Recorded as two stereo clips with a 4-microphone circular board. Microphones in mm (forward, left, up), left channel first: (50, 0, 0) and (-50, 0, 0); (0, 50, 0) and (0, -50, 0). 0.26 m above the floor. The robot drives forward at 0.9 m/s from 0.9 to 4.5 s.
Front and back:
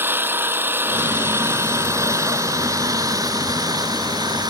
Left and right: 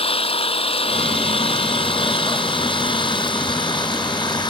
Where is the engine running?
110° left; by 4.5 s 135° left.